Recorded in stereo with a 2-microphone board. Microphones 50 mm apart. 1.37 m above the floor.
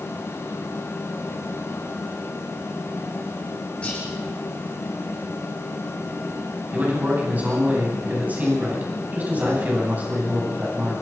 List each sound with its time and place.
3.8 s whispering: 25° left (ahead or behind), 4.5 m
6.7 s a man speaking: 30° right (ahead or behind), 10 m